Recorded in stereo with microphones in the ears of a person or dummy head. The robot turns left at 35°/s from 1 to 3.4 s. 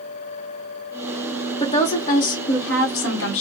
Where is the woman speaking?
140° left, 1.1 m; by 3.4 s 75° left, 1.1 m.